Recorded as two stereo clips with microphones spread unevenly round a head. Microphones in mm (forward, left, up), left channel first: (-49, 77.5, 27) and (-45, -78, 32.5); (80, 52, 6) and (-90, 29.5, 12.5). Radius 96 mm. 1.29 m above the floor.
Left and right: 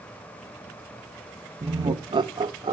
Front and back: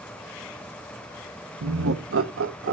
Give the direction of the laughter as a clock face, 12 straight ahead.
5 o'clock.